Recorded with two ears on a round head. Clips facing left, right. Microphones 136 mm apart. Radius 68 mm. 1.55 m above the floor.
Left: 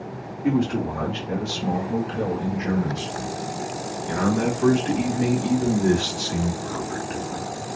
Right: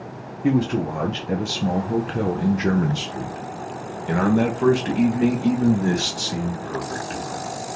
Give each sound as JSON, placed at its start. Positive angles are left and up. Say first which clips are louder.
{"t": 0.4, "sound": "a man speaking", "louder": "right 2 dB", "side_deg": -35, "distance_m": 1.6}